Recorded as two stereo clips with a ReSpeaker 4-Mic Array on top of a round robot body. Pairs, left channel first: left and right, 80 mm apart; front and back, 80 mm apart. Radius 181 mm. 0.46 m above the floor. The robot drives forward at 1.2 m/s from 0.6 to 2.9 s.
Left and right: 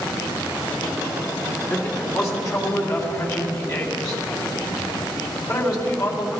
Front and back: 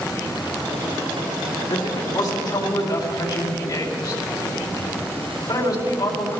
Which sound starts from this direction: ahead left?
A man speaking, at 1.7 s.